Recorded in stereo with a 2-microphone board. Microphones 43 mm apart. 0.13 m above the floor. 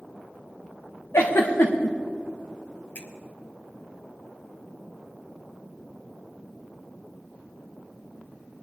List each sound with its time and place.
1.1 s a giggle: 85° left, 3 m
3.0 s a finger snap: 40° left (ahead or behind), 2 m